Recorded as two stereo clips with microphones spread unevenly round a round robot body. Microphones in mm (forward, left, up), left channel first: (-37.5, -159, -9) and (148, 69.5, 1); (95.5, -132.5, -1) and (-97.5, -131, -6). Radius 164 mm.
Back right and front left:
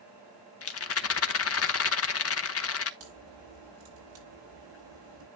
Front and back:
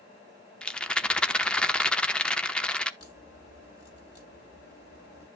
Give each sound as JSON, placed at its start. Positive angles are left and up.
{"t": 0.6, "sound": "a rattle", "azimuth_deg": -85, "distance_m": 1.1}
{"t": 3.0, "sound": "a crack", "azimuth_deg": 65, "distance_m": 7.0}